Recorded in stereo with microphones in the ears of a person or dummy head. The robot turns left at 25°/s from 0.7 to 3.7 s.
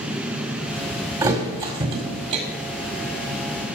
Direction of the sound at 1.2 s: 25° right (ahead or behind).